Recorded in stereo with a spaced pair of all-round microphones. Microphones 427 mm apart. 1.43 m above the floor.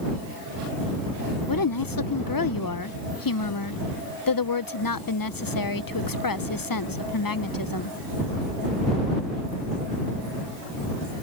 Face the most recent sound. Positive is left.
turn(degrees=50)  # may be behind; listen again after turning